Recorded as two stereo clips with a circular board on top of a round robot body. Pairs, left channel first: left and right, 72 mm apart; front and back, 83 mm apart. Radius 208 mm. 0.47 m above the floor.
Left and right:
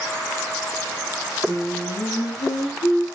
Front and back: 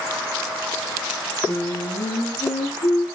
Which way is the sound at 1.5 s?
45° left.